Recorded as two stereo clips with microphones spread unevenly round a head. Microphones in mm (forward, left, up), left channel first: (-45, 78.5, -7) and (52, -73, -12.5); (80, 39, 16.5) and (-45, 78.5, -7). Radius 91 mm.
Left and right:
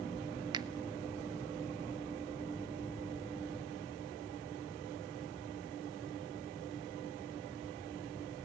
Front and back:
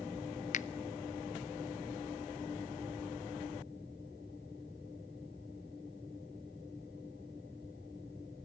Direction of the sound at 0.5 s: 5° left.